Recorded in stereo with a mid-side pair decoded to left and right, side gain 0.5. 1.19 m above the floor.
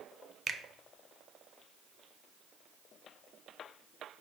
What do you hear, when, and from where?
0.5 s a finger snap: 35° right, 0.6 m